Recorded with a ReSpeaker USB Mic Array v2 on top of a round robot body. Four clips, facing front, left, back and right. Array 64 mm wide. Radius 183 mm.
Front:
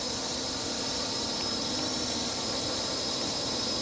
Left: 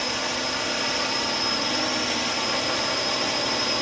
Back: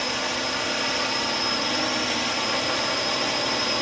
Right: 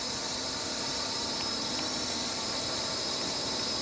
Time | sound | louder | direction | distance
0.0 | a drone | left 10 dB, back 8 dB | 145° left | ?